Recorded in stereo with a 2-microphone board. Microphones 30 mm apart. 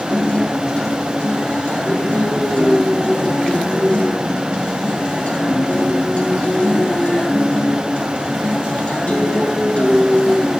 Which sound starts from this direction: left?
A guitar, at 0.1 s.